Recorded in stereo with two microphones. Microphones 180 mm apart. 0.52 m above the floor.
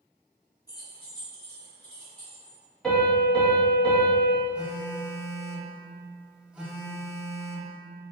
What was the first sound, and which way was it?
Keys jangling, 20° left (ahead or behind).